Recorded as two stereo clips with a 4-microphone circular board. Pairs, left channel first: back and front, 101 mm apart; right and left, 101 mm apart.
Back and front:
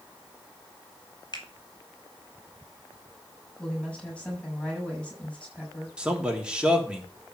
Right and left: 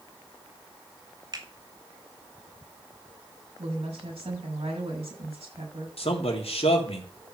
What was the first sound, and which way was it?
A finger snap, 135° left.